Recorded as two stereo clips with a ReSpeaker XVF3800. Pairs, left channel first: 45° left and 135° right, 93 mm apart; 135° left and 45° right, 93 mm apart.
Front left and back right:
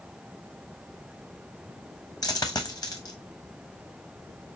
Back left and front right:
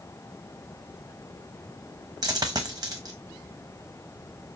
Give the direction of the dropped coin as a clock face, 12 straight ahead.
12 o'clock.